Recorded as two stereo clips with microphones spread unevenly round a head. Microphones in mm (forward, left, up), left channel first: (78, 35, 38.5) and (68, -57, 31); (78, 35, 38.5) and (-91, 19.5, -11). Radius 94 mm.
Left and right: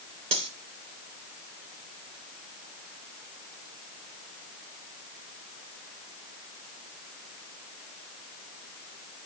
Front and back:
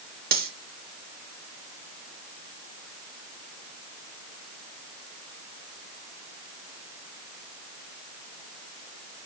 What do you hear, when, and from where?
0.3 s cutlery clinking: 130° right, 3 m